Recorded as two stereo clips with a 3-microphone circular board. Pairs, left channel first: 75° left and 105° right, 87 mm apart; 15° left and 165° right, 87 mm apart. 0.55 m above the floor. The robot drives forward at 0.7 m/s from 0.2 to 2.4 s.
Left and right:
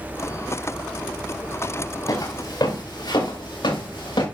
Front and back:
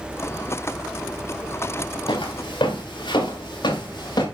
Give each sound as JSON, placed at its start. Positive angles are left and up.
{"t": 2.1, "sound": "footsteps", "azimuth_deg": 30, "distance_m": 4.0}